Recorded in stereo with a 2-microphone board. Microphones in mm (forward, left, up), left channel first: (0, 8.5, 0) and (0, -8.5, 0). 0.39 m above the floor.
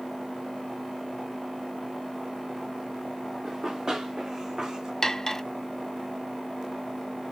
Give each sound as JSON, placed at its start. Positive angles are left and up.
{"t": 3.4, "sound": "running footsteps", "side_deg": -35, "distance_m": 2.5}
{"t": 5.0, "sound": "cutlery clinking", "side_deg": 25, "distance_m": 0.5}